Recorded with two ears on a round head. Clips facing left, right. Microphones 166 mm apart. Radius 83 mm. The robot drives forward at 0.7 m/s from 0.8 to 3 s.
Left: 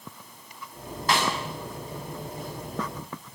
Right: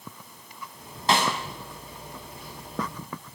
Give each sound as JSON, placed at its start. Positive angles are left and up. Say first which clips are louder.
{"t": 1.1, "sound": "a snare drum", "louder": "right 2 dB", "side_deg": -25, "distance_m": 6.0}